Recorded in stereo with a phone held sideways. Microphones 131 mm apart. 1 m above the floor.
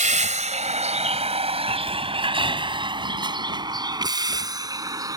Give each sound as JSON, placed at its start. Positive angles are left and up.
{"t": 0.0, "sound": "a vehicle", "side_deg": -70}